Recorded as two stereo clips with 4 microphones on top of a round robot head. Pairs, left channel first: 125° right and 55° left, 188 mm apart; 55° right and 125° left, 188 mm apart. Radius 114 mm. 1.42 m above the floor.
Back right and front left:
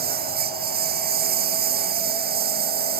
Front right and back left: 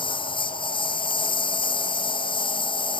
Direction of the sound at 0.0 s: 10° left.